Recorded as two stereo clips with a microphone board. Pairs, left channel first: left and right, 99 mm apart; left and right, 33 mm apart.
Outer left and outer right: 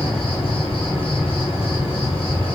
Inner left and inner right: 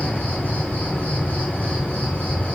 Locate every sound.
0.0 s an insect: 65° left (ahead or behind), 1.0 m